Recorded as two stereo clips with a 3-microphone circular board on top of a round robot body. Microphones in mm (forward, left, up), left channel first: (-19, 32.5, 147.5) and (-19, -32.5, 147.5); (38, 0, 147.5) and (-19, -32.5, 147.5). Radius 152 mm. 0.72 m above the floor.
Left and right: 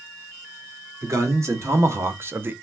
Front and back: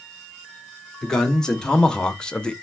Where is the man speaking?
50° right, 1.6 m; by 2.5 s 45° right, 0.7 m.